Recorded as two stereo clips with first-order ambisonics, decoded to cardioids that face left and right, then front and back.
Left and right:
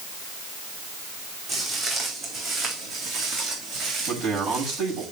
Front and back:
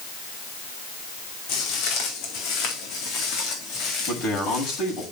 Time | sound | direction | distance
1.5 | footsteps | 20° right | 3.5 m
4.1 | a man speaking | 35° right | 7 m